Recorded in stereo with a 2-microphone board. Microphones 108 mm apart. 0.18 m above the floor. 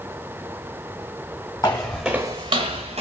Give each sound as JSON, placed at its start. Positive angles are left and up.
{"t": 1.6, "sound": "footsteps", "side_deg": 30, "distance_m": 0.8}